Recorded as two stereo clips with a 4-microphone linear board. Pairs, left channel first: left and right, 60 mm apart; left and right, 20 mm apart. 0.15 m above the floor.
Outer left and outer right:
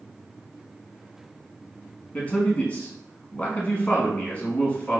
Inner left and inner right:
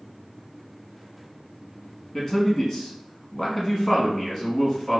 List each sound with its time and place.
2.1 s a man speaking: 20° left (ahead or behind), 1.1 m